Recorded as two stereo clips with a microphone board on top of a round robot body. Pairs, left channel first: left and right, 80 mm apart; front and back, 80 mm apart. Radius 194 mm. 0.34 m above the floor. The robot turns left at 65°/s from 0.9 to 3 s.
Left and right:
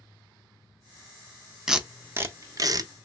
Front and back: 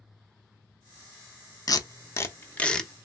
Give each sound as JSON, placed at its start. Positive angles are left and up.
{"t": 1.7, "sound": "tape being pulled", "azimuth_deg": -5, "distance_m": 0.8}